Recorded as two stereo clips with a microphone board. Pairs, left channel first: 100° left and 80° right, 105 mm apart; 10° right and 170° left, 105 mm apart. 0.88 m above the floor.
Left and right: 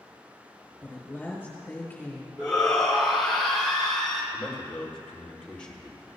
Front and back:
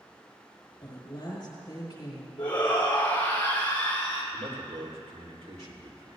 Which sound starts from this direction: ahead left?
A woman speaking, at 0.8 s.